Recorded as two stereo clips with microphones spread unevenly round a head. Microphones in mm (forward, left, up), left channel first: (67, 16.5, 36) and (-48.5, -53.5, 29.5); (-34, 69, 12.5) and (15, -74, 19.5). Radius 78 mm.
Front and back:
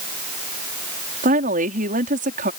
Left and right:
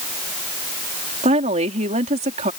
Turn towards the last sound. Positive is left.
turn(degrees=-120)